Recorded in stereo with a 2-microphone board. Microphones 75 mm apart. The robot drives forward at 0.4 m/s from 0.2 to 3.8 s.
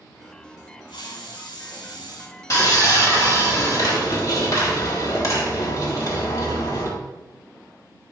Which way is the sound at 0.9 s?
80° left.